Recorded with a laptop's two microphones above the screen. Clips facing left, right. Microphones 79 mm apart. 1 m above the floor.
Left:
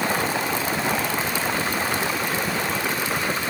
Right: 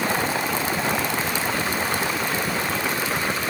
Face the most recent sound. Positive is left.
No sound to turn to.